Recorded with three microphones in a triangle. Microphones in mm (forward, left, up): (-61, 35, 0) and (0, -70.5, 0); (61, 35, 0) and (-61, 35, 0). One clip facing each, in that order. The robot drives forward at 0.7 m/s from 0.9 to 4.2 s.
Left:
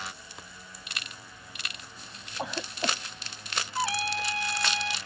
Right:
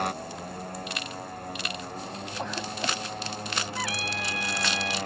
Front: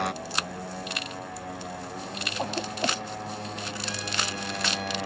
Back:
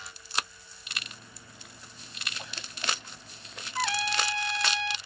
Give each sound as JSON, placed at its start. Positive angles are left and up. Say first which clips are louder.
{"t": 0.0, "sound": "a motorcycle", "louder": "right 12 dB, front 8 dB", "azimuth_deg": -25}
{"t": 2.4, "sound": "a cough", "louder": "even, front 17 dB", "azimuth_deg": 35}
{"t": 3.8, "sound": "a trumpet", "louder": "left 2 dB, back 9 dB", "azimuth_deg": 180}